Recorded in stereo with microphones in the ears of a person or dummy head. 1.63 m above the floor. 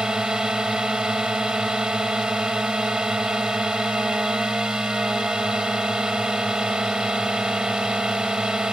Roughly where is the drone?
Centre.